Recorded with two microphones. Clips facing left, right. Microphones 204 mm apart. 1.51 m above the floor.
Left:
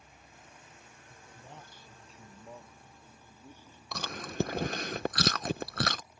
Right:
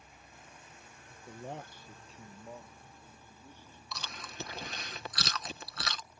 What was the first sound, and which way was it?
A man speaking, 75° right (ahead or behind).